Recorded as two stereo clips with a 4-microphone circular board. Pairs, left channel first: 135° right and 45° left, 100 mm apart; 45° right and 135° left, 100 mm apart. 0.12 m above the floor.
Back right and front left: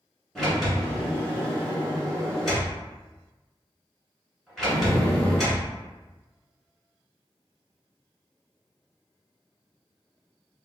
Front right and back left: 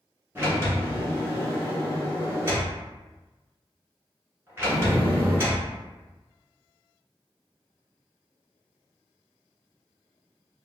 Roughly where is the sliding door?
Behind left.